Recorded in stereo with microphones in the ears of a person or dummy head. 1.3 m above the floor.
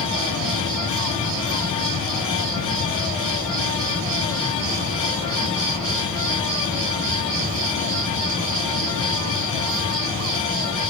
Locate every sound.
0.0 s an insect: 30° right (ahead or behind), 5 m